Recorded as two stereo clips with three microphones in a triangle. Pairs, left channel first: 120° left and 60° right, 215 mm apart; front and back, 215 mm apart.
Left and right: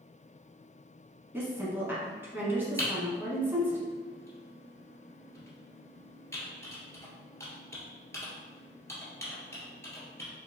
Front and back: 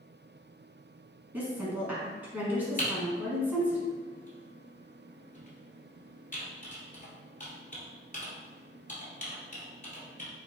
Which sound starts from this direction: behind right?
A woman speaking, at 1.3 s.